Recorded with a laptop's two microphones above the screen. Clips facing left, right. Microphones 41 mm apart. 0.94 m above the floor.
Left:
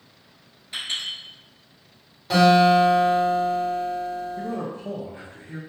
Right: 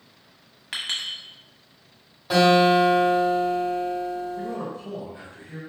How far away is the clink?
About 0.8 m.